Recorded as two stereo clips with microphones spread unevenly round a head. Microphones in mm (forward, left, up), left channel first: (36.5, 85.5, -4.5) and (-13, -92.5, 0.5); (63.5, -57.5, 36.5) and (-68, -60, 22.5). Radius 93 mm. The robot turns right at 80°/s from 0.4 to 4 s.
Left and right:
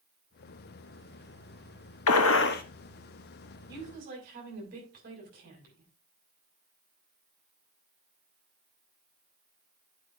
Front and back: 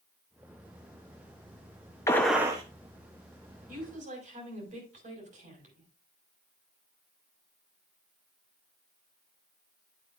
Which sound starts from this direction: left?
A gunshot, at 2.1 s.